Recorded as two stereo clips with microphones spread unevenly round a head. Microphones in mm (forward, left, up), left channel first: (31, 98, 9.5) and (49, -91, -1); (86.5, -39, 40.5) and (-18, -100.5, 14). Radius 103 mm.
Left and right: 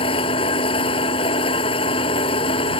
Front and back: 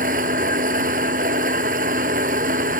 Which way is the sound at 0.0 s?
160° left.